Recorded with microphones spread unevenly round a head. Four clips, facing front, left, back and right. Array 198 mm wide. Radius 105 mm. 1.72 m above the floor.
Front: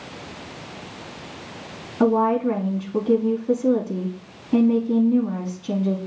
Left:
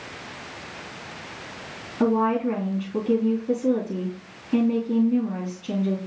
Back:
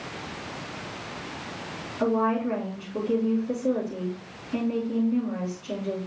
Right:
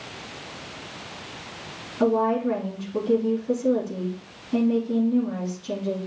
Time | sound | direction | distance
2.0 | a woman speaking | 20° left | 3.5 m